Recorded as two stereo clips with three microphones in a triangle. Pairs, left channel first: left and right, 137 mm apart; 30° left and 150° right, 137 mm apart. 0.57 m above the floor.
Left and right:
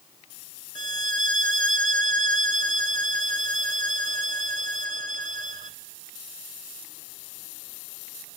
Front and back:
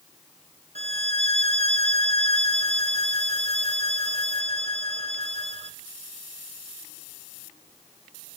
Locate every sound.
0.8 s a violin: 110° right, 0.6 m